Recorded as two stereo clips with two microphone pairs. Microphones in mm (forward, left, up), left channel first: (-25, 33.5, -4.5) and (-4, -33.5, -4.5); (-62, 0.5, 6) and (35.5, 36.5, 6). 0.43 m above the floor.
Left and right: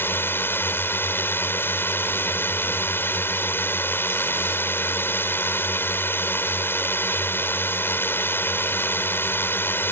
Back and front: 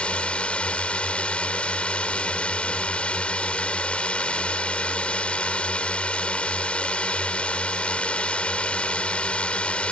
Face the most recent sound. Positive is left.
turn(degrees=130)